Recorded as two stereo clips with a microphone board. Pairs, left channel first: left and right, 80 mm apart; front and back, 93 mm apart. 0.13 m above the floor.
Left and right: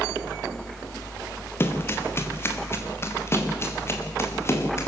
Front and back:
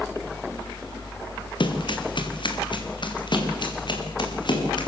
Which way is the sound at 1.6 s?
30° left.